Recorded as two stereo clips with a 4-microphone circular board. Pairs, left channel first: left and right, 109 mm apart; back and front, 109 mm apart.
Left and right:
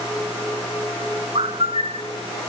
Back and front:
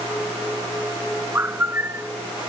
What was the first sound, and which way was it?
A bird, 70° right.